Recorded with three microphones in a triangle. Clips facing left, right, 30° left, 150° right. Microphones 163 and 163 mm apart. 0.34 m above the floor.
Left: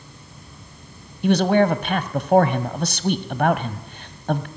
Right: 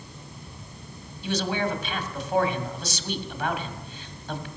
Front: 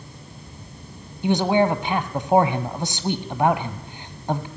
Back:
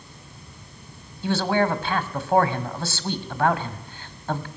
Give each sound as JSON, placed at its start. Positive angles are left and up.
{"t": 1.2, "sound": "a man speaking", "azimuth_deg": 100, "distance_m": 1.6}